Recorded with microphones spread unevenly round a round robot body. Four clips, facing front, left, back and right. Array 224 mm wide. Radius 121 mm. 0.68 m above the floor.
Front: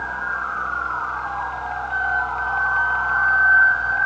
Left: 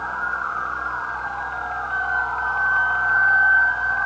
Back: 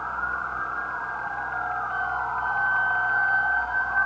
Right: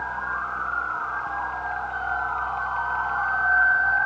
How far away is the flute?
About 7.5 m.